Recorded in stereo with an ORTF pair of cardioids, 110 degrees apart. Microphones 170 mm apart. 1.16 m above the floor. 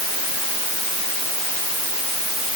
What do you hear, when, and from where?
Only background noise.